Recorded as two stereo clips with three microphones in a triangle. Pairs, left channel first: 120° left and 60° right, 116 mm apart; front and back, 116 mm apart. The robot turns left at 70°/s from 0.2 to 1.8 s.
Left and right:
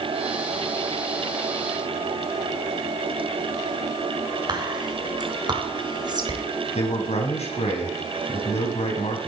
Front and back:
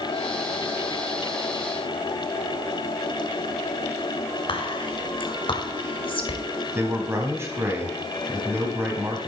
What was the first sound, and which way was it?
Whispering, 25° right.